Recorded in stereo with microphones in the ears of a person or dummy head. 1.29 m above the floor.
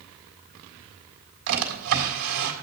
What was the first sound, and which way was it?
A drawer, 80° right.